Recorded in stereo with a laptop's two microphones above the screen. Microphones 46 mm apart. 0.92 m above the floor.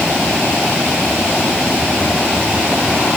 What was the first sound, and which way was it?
Only background noise.